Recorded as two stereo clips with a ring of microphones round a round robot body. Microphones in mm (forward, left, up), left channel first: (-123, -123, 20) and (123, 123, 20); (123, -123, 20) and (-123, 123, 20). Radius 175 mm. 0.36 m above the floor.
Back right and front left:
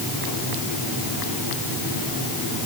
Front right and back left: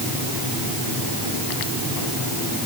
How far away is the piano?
I don't hear a piano.